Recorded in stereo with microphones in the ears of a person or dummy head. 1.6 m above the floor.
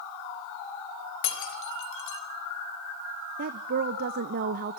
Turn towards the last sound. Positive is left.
turn(degrees=-45)  # may be behind; listen again after turning